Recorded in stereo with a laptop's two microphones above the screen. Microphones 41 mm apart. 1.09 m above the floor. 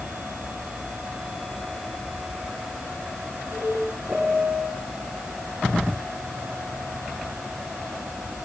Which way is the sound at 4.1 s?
30° right (ahead or behind).